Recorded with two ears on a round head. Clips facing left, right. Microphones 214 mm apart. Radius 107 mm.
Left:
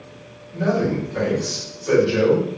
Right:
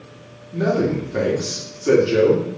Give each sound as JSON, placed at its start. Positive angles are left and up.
{"t": 0.5, "sound": "a man speaking", "side_deg": -70, "distance_m": 1.6}